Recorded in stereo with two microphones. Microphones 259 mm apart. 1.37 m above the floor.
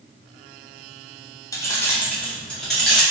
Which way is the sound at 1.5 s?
10° left (ahead or behind).